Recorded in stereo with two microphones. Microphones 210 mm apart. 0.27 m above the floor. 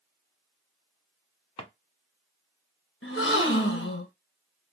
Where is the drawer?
25° left (ahead or behind), 0.7 m.